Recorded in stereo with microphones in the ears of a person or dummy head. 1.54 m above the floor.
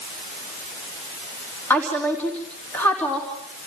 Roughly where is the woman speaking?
Centre.